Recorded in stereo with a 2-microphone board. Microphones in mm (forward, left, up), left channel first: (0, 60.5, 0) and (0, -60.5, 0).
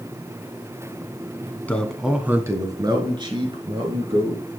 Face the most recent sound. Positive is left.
turn(degrees=-50)  # may be behind; listen again after turning